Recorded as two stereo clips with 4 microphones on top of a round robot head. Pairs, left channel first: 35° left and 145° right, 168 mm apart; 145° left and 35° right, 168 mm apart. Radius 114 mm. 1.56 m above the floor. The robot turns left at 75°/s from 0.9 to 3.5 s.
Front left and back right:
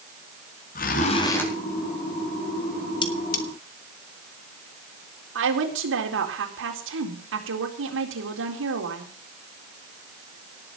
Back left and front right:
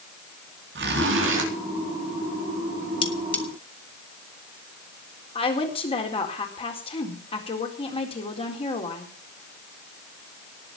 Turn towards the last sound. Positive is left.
turn(degrees=-150)